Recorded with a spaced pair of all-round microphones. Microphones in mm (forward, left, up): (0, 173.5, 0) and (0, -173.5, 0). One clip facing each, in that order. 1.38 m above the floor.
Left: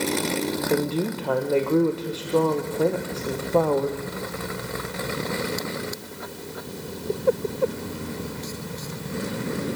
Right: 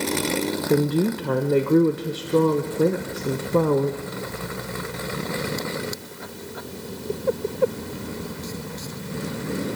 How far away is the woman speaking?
About 0.5 m.